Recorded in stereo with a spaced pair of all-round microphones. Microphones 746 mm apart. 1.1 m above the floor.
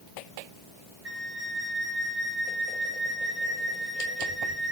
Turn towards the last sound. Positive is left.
turn(degrees=-30)  # may be behind; listen again after turning